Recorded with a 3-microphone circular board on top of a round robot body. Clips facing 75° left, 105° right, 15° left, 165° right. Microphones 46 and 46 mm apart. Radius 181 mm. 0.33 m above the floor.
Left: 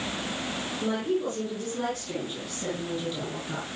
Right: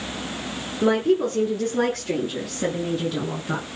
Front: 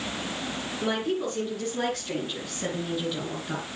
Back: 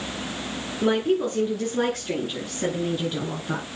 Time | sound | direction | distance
0.8 | a woman speaking | 95° right | 8.5 m